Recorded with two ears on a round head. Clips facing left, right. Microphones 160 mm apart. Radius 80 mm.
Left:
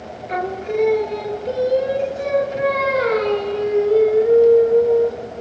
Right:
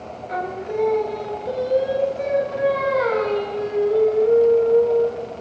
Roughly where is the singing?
Left.